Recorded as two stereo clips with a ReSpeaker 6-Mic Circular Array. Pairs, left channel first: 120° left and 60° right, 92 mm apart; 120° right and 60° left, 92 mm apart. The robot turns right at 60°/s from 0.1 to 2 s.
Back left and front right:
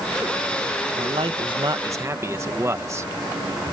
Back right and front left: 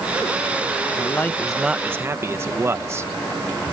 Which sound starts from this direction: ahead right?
A man speaking, at 1.0 s.